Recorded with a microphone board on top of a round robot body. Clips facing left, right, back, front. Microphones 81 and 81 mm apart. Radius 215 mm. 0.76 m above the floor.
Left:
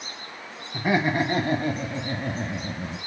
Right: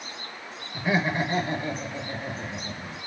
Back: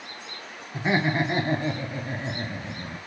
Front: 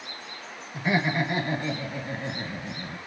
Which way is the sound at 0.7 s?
120° left.